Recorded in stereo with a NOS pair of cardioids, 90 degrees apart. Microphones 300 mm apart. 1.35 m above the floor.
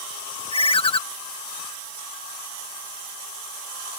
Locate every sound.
0.5 s a ringtone: 20° left